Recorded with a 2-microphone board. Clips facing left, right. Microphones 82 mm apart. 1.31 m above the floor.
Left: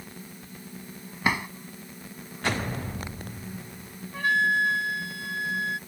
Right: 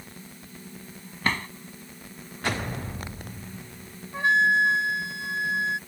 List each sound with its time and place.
1.2 s a drawer: 10° left (ahead or behind)
4.1 s a flute: 20° right (ahead or behind)